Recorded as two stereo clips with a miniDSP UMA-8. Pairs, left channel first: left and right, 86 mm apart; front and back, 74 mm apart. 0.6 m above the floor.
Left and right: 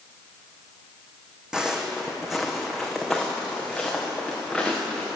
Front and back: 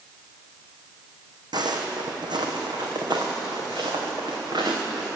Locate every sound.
1.5 s footsteps: 170° right, 2 m; by 5.1 s 175° left, 4.5 m